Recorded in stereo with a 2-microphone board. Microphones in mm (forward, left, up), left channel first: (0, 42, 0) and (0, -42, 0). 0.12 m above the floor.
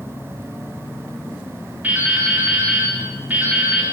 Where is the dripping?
20° right (ahead or behind), 4 m.